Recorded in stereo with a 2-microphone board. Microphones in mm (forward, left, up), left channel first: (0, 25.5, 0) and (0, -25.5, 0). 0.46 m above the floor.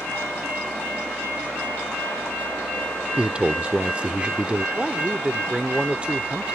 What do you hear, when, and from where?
3.2 s a man speaking: 20° right (ahead or behind)
4.8 s a man speaking: 20° right (ahead or behind)